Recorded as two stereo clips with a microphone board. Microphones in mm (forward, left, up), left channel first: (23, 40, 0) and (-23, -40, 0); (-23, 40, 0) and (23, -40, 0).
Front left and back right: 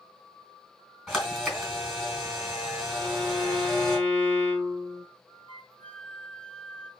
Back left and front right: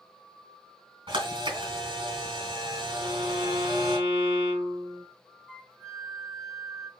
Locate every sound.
1.1 s a camera shutter: 30° right, 3.5 m
3.0 s a violin: 15° right, 6 m
5.5 s a flute: 40° left, 1.1 m